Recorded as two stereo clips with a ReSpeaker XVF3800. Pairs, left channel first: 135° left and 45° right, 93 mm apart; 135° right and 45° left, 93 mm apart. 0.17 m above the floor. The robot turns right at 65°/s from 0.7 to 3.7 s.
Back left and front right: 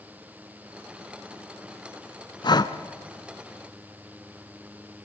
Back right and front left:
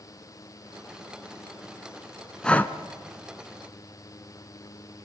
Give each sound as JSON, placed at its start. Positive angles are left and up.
{"t": 2.4, "sound": "breathing", "azimuth_deg": 145, "distance_m": 0.9}